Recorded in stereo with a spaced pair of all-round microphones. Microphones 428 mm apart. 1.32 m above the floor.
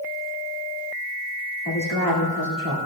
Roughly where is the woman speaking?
Left.